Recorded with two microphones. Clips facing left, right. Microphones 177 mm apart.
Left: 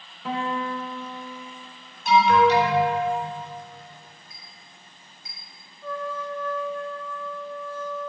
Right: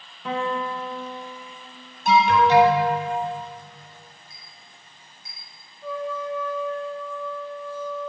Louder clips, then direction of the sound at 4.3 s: Left 1 dB; 15° left (ahead or behind).